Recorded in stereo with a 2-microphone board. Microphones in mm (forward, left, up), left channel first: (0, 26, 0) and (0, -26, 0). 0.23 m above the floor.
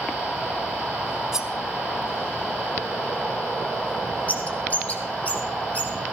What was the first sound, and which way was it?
Cutlery clinking, 10° right (ahead or behind).